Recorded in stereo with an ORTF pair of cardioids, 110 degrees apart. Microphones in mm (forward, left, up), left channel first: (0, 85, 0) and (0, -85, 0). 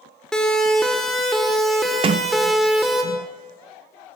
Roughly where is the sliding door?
Ahead right.